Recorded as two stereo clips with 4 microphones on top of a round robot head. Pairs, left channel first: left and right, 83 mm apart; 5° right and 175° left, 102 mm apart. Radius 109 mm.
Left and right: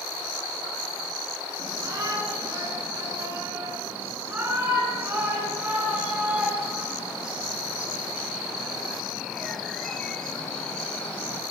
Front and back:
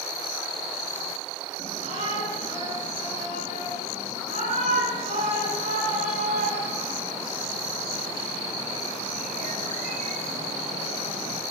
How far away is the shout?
About 9.5 m.